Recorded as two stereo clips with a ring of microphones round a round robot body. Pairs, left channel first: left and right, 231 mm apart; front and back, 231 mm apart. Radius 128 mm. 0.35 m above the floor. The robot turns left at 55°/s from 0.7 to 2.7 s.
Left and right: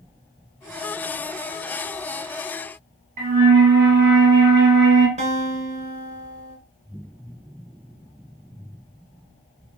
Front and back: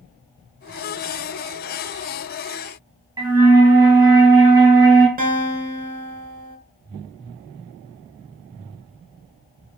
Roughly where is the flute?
Right.